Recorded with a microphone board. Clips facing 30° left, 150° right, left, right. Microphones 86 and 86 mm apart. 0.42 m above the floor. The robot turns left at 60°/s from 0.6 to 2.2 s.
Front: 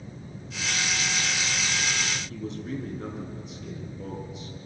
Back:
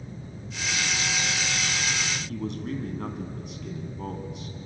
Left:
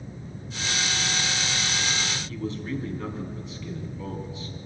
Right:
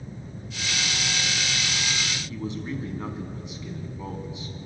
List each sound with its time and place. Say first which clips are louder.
2.3 s a man speaking: back 2 dB, left 1 dB; 160° right, 3.5 m